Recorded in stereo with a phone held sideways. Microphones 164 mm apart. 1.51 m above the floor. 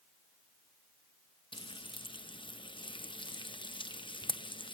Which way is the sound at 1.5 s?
30° left (ahead or behind).